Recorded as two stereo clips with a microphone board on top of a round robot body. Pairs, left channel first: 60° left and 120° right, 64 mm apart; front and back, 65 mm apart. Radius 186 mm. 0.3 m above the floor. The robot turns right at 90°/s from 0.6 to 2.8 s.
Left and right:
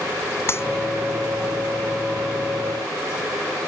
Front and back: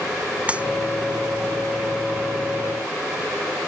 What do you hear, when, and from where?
0.5 s a clap: 110° left; by 0.7 s 115° left